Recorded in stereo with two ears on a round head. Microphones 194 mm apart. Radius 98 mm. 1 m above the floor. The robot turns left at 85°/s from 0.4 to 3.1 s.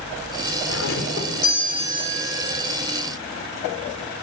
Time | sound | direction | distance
0.7 | a doorbell | 85° left | 5.5 m